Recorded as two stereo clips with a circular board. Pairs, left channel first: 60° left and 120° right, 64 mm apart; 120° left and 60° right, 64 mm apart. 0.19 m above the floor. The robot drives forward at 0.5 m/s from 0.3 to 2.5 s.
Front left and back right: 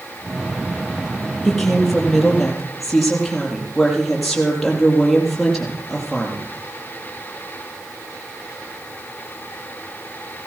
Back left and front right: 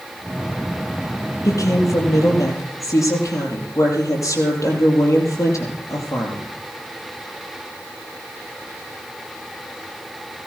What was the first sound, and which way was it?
A woman speaking, 145° left.